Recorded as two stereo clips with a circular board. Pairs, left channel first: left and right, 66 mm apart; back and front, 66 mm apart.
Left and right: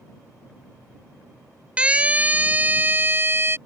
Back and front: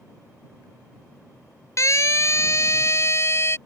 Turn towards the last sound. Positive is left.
turn(degrees=-140)